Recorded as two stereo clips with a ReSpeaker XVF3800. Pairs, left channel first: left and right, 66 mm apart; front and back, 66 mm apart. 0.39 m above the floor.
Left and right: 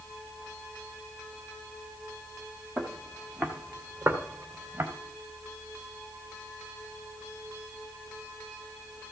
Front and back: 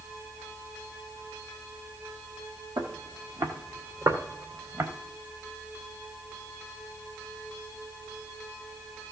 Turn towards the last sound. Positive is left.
turn(degrees=-145)